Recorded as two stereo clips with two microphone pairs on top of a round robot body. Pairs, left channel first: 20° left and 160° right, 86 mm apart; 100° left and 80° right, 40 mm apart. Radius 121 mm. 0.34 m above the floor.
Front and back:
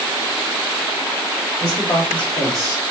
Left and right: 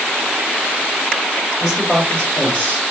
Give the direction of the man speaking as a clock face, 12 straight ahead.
12 o'clock.